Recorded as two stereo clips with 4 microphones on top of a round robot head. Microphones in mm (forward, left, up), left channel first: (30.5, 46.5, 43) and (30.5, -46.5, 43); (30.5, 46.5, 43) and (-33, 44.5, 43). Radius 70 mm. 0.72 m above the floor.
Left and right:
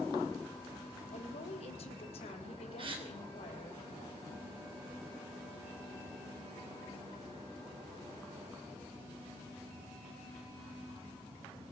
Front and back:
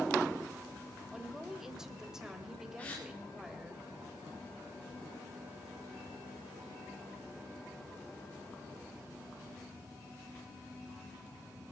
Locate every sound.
1.1 s a woman speaking: 100° left, 3 m
2.8 s a gasp: 65° right, 3 m